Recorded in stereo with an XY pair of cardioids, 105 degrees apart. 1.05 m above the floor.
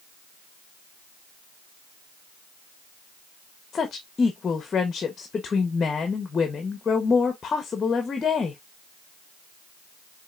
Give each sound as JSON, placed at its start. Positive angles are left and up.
{"t": 3.7, "sound": "a woman speaking", "azimuth_deg": 40, "distance_m": 1.0}